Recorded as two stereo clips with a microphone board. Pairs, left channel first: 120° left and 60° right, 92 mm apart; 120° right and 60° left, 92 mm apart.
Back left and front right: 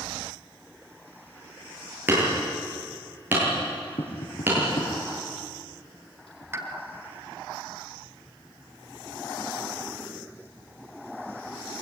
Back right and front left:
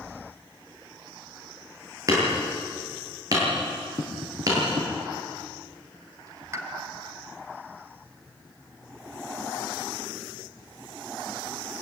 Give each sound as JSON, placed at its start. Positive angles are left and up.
{"t": 2.1, "sound": "hammering", "azimuth_deg": 10, "distance_m": 9.0}
{"t": 4.0, "sound": "tapping", "azimuth_deg": 110, "distance_m": 6.0}
{"t": 6.5, "sound": "a pop", "azimuth_deg": 0, "distance_m": 2.5}